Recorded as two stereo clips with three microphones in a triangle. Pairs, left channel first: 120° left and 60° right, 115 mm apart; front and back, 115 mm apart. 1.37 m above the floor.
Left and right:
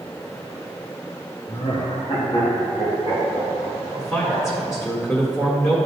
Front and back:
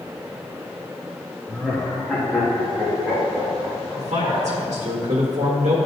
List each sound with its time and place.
1.5 s laughter: 80° left, 0.7 m; by 4.6 s 90° left, 2.5 m
4.0 s a man speaking: 175° right, 1.7 m